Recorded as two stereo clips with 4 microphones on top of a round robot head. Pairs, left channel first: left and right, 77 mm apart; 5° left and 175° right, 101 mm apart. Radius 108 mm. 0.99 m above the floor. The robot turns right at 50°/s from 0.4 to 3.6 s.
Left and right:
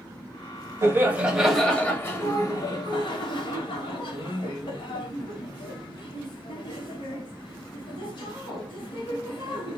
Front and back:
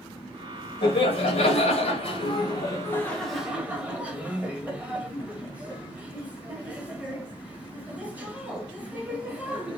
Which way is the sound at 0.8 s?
35° right.